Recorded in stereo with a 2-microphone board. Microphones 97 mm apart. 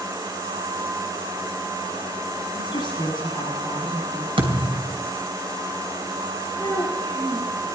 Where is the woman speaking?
55° left (ahead or behind), 9.5 m.